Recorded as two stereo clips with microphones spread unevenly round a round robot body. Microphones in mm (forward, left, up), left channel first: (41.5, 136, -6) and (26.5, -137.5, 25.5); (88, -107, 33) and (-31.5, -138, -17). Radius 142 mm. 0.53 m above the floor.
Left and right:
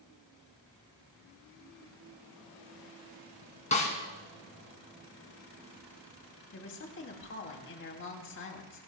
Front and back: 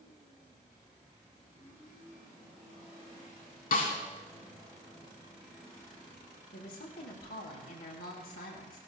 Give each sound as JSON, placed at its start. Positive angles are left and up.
{"t": 3.7, "sound": "a snare drum", "azimuth_deg": 20, "distance_m": 3.0}
{"t": 6.5, "sound": "a woman speaking", "azimuth_deg": 45, "distance_m": 3.0}